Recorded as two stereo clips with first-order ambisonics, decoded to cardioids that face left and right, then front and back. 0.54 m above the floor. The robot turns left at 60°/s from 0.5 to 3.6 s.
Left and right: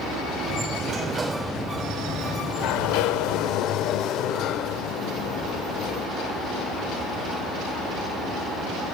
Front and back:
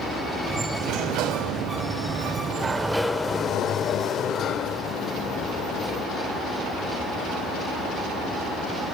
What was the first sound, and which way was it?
A sliding door, 140° right.